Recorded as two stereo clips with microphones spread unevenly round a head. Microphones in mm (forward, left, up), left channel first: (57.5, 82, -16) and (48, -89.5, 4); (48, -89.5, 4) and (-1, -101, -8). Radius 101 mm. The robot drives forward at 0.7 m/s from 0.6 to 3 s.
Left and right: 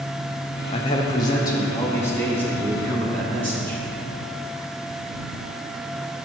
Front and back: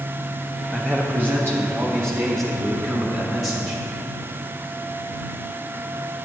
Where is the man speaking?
125° left, 0.6 m; by 3.8 s 170° left, 1.9 m.